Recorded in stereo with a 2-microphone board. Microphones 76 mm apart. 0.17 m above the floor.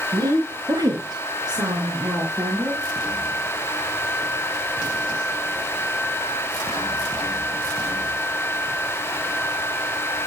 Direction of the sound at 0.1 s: 55° right (ahead or behind).